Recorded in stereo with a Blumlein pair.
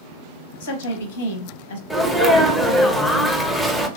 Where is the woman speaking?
55° left, 0.8 m.